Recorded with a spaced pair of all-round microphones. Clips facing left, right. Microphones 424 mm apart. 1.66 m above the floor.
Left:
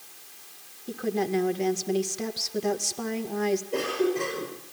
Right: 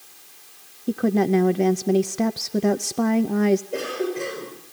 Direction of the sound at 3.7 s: 10° left (ahead or behind).